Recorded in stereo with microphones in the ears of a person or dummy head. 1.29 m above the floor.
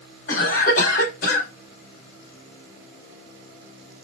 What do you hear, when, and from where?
0.3 s a cough: 50° left (ahead or behind), 2.5 m